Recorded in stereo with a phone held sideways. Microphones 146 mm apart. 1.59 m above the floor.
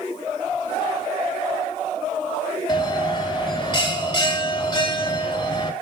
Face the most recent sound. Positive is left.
turn(degrees=30)  # may be behind; listen again after turning